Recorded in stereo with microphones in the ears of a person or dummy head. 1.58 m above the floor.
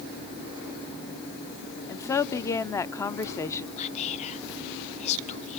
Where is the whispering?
35° left (ahead or behind), 1.2 m.